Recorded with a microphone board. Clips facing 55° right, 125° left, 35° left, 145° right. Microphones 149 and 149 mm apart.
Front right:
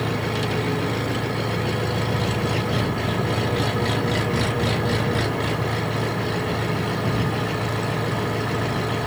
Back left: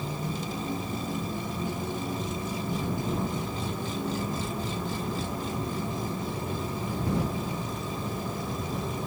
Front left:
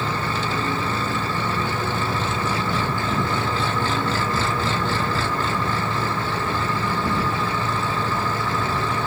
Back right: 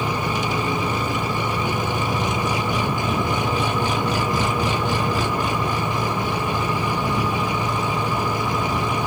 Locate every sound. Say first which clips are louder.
0.0 s an engine running: front right 9 dB, back right 2 dB; 70° right